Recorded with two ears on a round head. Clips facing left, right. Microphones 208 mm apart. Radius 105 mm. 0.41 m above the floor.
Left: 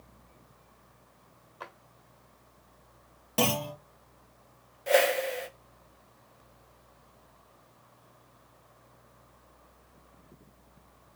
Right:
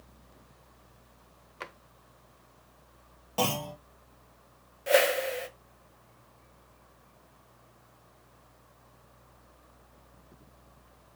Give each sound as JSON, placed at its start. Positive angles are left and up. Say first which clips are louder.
{"t": 1.6, "sound": "a drawer", "louder": "right 2 dB", "side_deg": -30, "distance_m": 0.7}
{"t": 3.4, "sound": "a clunk", "louder": "left 2 dB", "side_deg": 30, "distance_m": 3.0}
{"t": 4.9, "sound": "a whoosh", "louder": "even", "side_deg": -5, "distance_m": 1.0}